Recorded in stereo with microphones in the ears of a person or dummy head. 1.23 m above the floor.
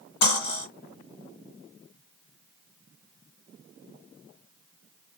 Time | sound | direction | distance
0.2 | cutlery clinking | 30° left (ahead or behind) | 2 m